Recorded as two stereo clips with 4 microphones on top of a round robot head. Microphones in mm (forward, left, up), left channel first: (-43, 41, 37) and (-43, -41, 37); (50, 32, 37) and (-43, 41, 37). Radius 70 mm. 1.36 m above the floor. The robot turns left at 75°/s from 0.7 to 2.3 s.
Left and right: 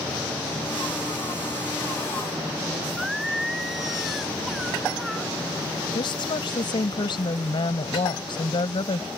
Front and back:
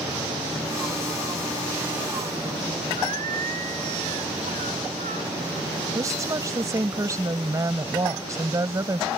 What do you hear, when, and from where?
3.0 s singing: 175° right
6.0 s a woman speaking: 120° left